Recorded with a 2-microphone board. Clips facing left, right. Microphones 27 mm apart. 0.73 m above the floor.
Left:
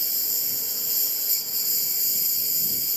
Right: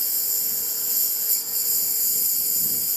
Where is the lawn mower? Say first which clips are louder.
Even; 20° left (ahead or behind).